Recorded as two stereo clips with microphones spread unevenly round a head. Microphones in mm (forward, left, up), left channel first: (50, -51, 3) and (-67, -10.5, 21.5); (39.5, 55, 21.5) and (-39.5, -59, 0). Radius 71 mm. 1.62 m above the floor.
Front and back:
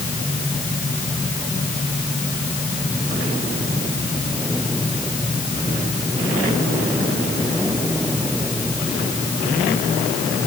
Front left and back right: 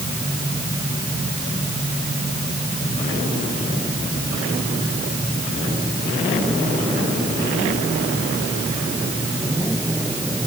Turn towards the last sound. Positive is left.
No sound to turn to.